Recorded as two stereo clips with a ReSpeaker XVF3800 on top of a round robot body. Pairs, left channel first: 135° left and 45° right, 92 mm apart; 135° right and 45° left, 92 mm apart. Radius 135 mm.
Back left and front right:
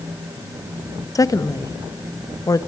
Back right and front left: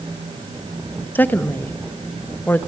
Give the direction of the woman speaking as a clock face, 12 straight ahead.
7 o'clock.